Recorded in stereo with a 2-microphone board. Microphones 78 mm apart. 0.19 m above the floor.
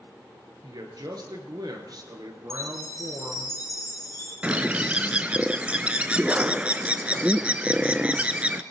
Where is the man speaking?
65° right (ahead or behind), 3 m.